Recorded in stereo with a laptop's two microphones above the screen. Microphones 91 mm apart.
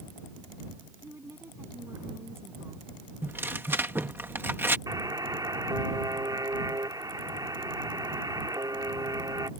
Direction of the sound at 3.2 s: 25° right (ahead or behind).